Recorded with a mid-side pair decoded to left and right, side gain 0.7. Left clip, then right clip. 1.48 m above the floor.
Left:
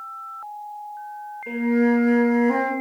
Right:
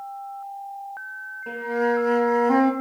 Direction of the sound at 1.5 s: 25° right.